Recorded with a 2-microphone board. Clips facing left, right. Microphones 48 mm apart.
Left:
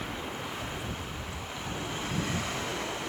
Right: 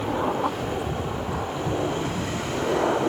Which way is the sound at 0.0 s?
65° right (ahead or behind).